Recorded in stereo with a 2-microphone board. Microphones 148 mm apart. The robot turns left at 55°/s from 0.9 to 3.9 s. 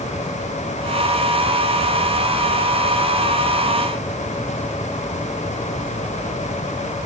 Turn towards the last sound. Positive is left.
No sound to turn to.